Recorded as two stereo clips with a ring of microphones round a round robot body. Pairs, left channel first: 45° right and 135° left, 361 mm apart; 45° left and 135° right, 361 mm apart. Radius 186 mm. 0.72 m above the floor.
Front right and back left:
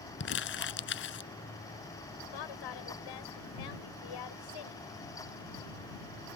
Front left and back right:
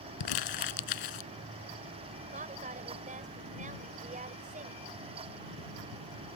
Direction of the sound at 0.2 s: 15° left.